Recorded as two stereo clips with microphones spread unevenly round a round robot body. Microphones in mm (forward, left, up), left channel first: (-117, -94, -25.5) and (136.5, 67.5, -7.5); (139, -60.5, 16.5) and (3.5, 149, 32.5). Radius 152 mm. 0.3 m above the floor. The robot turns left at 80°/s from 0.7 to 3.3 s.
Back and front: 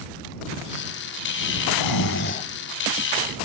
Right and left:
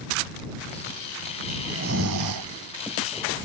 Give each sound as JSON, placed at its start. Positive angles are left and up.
{"t": 1.7, "sound": "snoring", "azimuth_deg": -160}